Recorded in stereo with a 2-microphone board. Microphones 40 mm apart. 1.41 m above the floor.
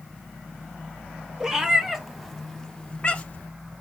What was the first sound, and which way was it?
A cat meowing, 20° right (ahead or behind).